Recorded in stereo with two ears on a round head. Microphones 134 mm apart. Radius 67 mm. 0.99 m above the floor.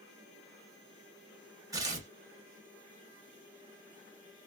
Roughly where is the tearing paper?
Right.